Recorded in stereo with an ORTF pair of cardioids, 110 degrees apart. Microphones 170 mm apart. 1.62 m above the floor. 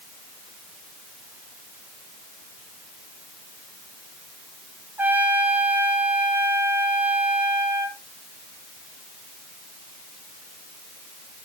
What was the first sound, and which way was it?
A trumpet, 10° right.